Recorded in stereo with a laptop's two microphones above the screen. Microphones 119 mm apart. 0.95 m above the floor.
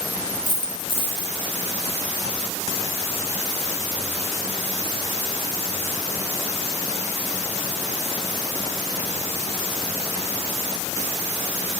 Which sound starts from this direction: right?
A dropped coin, at 0.5 s.